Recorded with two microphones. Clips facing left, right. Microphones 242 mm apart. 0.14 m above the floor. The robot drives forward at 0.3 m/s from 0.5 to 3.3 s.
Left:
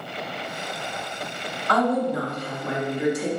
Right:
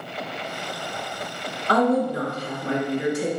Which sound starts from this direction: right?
A woman speaking, at 1.7 s.